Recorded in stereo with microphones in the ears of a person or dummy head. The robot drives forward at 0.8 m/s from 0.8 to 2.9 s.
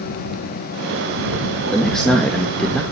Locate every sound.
1.7 s a man speaking: centre (ahead or behind), 3 m